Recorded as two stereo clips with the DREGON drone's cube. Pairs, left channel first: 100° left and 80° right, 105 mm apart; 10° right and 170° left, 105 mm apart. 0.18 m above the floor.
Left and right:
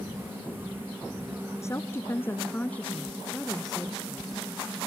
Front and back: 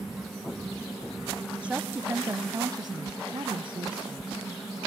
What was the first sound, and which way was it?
A woman speaking, 100° left.